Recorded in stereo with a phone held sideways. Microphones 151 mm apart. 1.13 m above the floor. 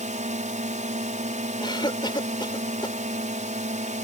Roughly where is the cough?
Left.